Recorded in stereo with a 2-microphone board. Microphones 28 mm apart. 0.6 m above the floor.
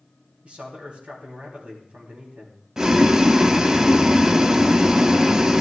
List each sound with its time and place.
0.4 s a man speaking: 45° right (ahead or behind), 3.5 m
2.8 s boiling: 20° right (ahead or behind), 0.5 m